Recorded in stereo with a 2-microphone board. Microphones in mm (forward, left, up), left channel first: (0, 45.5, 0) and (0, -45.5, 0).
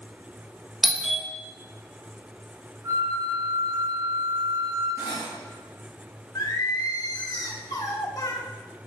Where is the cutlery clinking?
30° right (ahead or behind), 4 m.